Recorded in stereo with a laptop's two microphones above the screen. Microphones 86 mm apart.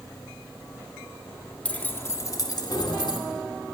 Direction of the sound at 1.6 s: 15° left (ahead or behind).